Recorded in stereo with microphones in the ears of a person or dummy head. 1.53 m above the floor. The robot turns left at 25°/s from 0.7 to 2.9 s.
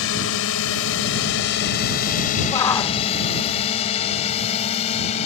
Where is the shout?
20° left (ahead or behind); by 3.0 s 10° left (ahead or behind).